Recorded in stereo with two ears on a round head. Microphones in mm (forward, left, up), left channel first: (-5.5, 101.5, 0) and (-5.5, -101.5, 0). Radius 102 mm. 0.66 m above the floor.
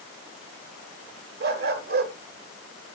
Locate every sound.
1.4 s a dog barking: 45° right (ahead or behind), 1.2 m